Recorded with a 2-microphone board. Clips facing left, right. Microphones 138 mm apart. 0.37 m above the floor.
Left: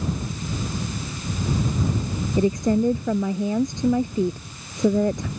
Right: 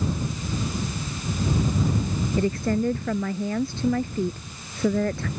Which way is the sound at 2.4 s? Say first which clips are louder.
Left 5 dB; 15° left (ahead or behind).